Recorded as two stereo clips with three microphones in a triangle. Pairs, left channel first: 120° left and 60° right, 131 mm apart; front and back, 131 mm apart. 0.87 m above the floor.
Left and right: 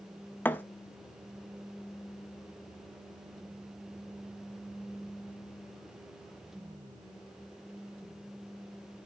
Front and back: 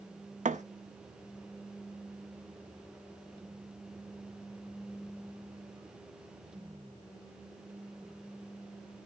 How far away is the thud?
About 0.7 m.